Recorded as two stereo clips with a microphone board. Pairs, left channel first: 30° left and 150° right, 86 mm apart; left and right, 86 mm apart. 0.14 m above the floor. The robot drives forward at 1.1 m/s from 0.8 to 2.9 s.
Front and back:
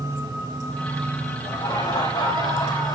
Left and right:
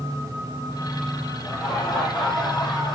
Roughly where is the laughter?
Ahead.